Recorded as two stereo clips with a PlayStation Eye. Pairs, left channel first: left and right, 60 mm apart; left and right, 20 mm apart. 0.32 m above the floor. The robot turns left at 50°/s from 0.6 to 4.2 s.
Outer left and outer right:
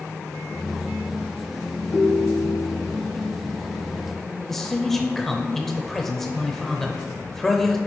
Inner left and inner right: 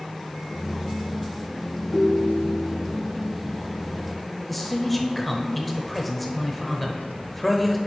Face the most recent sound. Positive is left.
turn(degrees=5)  # may be behind; listen again after turning